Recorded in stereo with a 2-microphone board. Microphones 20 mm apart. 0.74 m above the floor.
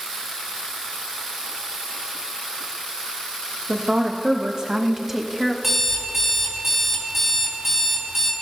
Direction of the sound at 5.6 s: 10° right (ahead or behind).